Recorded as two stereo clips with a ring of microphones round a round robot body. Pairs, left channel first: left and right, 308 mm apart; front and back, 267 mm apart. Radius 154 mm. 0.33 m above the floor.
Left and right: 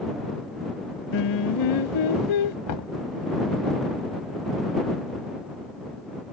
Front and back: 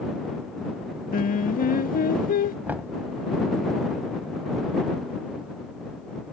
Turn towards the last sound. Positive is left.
turn(degrees=100)